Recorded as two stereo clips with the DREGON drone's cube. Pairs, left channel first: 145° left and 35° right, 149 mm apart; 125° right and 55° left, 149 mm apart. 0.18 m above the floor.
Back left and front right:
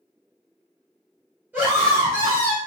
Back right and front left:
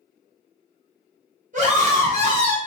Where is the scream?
40° left, 2.5 m; by 2.6 s 25° left, 1.8 m.